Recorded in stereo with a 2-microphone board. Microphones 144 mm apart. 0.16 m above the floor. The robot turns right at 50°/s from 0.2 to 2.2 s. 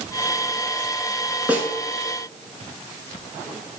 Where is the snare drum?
10° right (ahead or behind), 0.6 m; by 1.7 s 15° right (ahead or behind), 0.6 m.